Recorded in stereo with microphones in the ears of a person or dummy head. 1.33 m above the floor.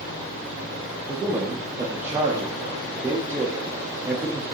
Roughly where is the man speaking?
Centre.